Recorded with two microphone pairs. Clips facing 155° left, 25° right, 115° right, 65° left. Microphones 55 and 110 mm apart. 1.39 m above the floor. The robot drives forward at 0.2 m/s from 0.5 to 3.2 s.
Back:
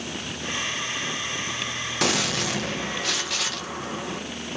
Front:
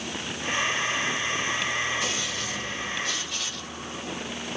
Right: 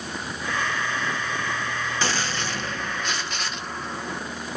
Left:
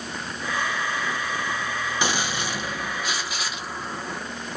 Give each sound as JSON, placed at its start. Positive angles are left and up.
{"t": 2.0, "sound": "a gunshot", "azimuth_deg": 140, "distance_m": 0.8}